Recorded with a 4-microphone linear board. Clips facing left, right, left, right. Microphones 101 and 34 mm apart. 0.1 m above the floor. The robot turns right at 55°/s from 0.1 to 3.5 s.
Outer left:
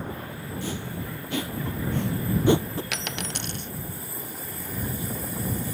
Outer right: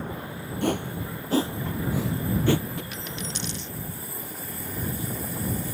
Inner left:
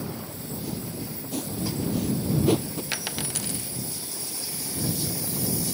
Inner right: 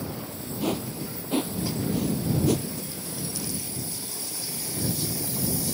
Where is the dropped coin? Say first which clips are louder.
Outer left 2 dB, inner left 4 dB; 95° left; by 3.7 s 130° left.